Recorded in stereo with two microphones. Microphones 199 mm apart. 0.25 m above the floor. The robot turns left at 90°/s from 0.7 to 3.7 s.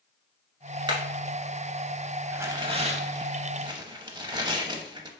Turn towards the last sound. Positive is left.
turn(degrees=-140)